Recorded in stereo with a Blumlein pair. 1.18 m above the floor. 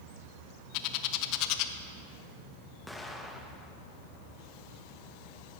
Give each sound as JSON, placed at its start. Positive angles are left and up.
{"t": 0.7, "sound": "a bird", "azimuth_deg": 40, "distance_m": 0.7}
{"t": 2.9, "sound": "an explosion", "azimuth_deg": 5, "distance_m": 1.0}